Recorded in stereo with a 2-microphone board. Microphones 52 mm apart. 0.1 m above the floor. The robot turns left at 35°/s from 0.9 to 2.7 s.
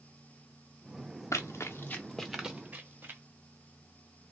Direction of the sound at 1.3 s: 85° left.